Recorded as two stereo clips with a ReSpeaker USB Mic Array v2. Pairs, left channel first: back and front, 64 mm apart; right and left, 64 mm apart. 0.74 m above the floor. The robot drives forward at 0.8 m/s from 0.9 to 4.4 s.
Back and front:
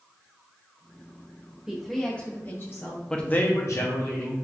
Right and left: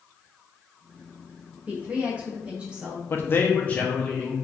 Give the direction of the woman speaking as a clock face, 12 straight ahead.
10 o'clock.